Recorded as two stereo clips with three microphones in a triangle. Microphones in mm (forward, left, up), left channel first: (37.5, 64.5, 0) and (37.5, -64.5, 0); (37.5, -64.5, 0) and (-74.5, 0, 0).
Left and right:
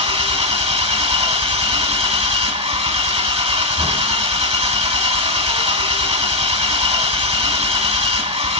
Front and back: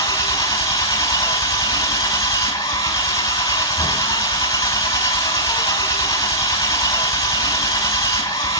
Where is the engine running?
80° right, 0.8 m.